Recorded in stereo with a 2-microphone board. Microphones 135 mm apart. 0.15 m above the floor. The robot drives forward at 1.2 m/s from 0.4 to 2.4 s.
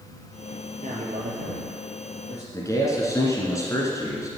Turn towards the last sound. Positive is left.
turn(degrees=25)  # may be behind; listen again after turning